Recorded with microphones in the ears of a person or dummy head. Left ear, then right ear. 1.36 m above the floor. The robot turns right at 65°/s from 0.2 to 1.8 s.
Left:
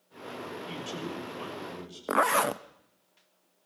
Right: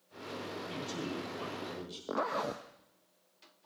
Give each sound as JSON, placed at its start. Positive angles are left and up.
{"t": 0.7, "sound": "a man speaking", "azimuth_deg": 125, "distance_m": 7.0}
{"t": 2.1, "sound": "a zipper", "side_deg": 45, "distance_m": 0.8}